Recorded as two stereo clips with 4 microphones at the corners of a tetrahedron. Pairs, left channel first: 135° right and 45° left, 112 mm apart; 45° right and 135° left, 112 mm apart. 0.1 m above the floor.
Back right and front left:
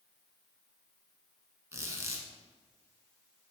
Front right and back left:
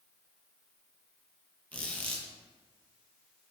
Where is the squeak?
20° left, 0.7 m.